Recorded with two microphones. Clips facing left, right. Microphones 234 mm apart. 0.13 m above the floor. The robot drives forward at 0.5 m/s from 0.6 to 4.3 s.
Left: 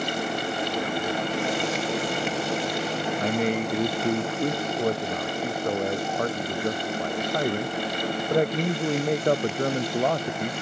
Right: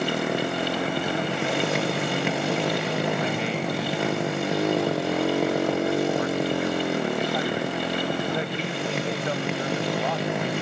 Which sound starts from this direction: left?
A man speaking, at 3.2 s.